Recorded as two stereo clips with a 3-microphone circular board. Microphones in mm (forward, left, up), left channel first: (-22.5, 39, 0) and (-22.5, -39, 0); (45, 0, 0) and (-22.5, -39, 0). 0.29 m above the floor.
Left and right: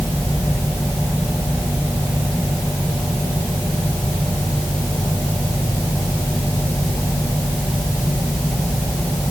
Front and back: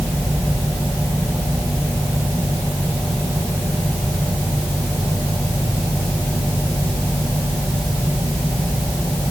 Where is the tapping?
No tapping in this recording.